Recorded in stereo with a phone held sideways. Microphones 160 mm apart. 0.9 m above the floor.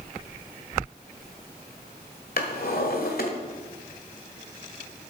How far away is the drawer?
About 1.6 m.